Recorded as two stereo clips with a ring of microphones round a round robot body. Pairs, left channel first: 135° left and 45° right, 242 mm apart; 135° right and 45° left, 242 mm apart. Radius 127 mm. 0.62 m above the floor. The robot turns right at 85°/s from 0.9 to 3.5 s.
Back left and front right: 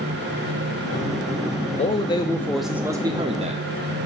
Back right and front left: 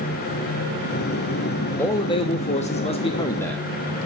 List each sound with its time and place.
1.8 s a man speaking: 155° left, 0.7 m; by 3.7 s 60° right, 0.7 m